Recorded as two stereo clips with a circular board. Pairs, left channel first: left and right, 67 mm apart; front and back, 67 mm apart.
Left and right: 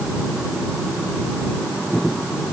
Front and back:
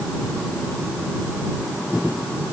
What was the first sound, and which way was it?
Only background noise.